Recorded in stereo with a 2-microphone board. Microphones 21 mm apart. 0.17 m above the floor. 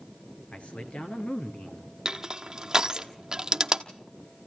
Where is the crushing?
30° right (ahead or behind), 1.1 m.